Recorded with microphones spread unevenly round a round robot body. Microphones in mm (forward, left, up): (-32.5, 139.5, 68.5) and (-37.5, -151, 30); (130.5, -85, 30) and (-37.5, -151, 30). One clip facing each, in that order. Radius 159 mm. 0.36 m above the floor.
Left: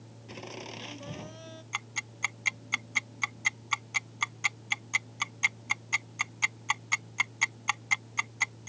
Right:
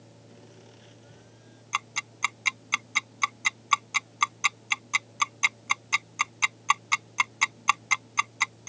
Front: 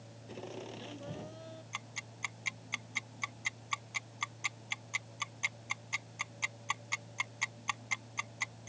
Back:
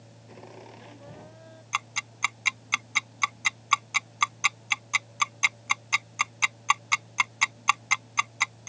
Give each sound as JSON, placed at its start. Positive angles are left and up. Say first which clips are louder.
{"t": 0.3, "sound": "laughter", "louder": "left 11 dB, front 2 dB", "azimuth_deg": 95}
{"t": 1.7, "sound": "ticking", "louder": "right 3 dB, back 10 dB", "azimuth_deg": -165}